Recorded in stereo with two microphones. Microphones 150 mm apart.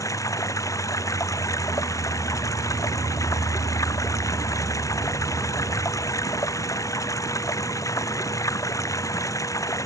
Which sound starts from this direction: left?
Running water, at 0.0 s.